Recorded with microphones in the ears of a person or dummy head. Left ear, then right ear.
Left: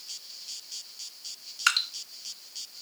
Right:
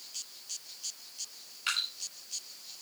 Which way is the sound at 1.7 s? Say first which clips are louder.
Left 7 dB; 55° left (ahead or behind).